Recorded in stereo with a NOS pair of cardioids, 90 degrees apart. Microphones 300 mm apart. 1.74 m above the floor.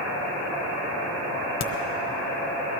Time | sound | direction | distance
1.6 | a crack | 60° left | 1.2 m